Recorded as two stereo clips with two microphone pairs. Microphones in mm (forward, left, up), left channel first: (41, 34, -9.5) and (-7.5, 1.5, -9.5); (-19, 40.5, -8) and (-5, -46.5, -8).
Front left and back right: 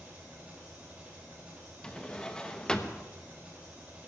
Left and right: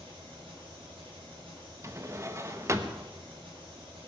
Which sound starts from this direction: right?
An engine running, at 0.0 s.